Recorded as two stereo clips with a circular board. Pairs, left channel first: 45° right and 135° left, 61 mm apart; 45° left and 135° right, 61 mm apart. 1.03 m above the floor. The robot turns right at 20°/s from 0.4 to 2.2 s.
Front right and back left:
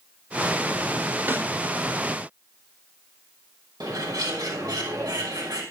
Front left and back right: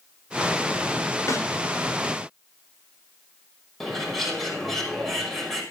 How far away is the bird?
About 6 m.